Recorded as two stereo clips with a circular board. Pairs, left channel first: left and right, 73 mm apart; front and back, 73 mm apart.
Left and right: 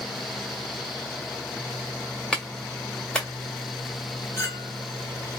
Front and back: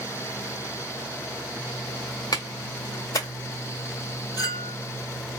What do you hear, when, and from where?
2.3 s a clap: 15° left, 1.4 m
4.4 s a clink: 40° left, 1.5 m